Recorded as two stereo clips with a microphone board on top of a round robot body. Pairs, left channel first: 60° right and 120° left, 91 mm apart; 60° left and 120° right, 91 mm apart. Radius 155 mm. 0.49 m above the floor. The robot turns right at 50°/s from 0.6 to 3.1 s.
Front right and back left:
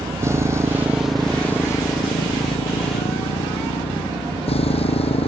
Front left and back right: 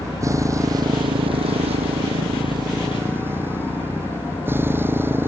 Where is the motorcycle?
175° right; by 5.3 s 50° right.